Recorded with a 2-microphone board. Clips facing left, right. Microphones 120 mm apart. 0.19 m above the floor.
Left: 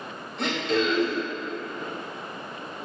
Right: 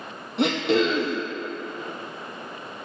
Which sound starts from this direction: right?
Throat clearing, at 0.4 s.